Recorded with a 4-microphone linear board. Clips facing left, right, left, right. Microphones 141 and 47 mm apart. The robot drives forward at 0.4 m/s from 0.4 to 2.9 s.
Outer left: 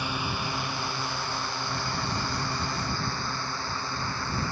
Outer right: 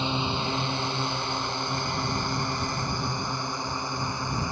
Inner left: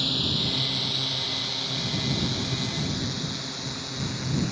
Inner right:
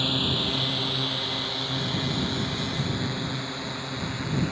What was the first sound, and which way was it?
A drone, 25° right (ahead or behind).